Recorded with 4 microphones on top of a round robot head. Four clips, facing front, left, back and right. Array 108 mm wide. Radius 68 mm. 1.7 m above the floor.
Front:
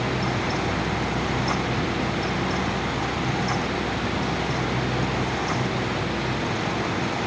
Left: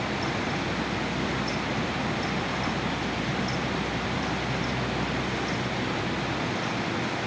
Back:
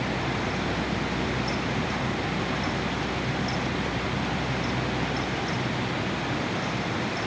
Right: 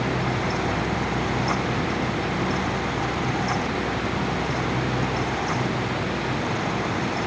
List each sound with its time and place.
Only background noise.